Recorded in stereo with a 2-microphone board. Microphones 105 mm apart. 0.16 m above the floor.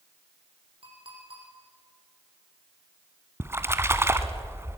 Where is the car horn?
I don't hear a car horn.